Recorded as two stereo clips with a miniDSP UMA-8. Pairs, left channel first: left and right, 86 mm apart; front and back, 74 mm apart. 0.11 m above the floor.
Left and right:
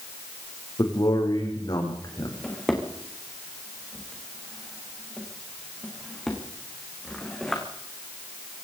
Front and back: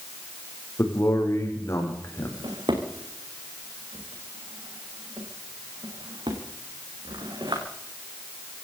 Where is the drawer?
175° left, 5.5 m.